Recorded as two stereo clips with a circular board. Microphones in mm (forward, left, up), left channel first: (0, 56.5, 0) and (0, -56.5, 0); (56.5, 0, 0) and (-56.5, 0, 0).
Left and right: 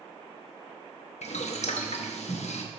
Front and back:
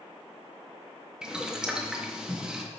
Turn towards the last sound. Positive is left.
turn(degrees=95)